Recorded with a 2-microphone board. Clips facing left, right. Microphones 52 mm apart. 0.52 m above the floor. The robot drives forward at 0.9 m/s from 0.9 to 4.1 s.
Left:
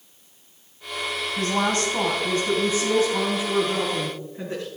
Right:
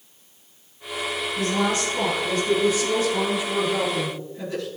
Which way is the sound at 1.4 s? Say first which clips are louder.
Even; 40° left (ahead or behind).